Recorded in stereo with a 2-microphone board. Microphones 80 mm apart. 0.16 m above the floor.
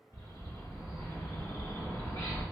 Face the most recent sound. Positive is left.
turn(degrees=50)  # may be behind; listen again after turning